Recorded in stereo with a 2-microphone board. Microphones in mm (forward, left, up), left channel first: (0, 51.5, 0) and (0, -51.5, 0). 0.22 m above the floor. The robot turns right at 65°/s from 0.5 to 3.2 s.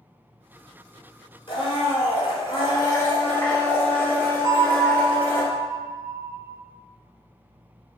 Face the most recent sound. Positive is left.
turn(degrees=-35)  # may be behind; listen again after turning